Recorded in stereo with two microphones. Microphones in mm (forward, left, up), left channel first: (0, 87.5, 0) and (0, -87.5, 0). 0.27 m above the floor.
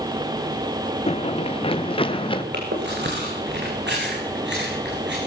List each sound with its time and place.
1.1 s running footsteps: 35° left (ahead or behind), 0.8 m; by 2.4 s 30° left (ahead or behind), 2.0 m
2.5 s chewing: 85° right, 5 m